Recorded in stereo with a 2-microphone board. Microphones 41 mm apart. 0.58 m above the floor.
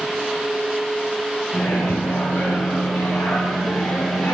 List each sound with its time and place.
1.5 s a microwave: 75° left (ahead or behind), 3.5 m